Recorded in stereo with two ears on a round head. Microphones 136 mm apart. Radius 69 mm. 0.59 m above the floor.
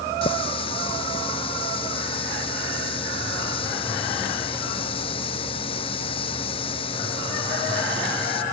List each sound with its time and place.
0.2 s a running tap: 40° left (ahead or behind)